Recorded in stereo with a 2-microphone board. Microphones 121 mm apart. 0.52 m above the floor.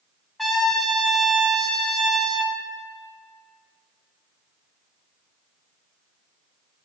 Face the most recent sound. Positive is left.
turn(degrees=0)  # may be behind; listen again after turning